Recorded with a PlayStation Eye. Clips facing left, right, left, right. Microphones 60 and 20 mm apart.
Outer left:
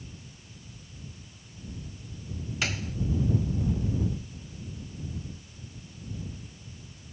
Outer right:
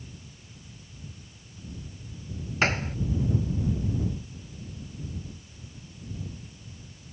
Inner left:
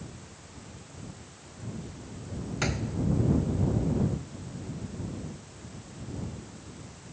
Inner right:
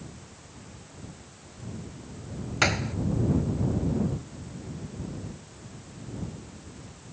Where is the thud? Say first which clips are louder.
Outer right 7 dB, inner right 7 dB; 40° right (ahead or behind).